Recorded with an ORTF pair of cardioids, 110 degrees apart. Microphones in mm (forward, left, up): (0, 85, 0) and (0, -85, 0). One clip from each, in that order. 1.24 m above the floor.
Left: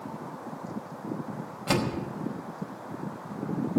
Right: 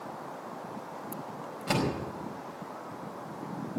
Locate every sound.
1.7 s a door slam: 25° left, 5 m